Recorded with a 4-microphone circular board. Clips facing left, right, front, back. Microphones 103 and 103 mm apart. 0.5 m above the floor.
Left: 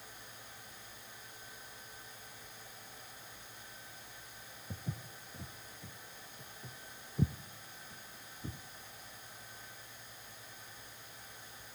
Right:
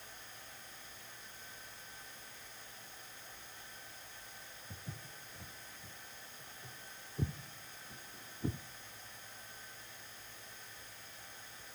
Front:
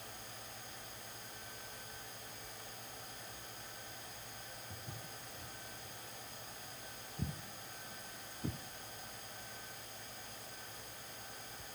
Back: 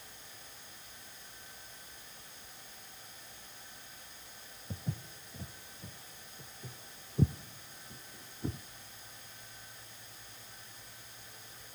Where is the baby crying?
No baby crying in this recording.